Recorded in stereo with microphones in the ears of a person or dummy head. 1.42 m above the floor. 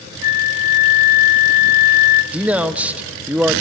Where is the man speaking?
10° right (ahead or behind), 0.7 m.